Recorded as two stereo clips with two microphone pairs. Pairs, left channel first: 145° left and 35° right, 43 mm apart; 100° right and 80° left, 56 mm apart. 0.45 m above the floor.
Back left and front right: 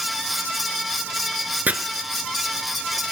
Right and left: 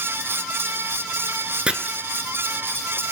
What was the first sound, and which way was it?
Chopping, 10° left.